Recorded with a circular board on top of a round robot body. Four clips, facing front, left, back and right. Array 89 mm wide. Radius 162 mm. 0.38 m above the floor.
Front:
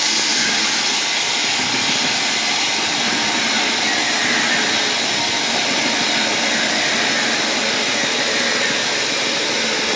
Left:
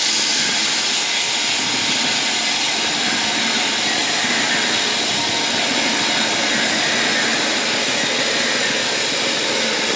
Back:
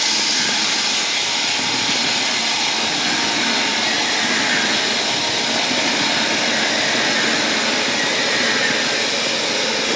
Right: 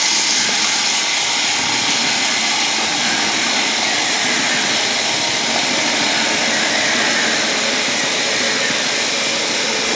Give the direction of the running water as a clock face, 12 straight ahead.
3 o'clock.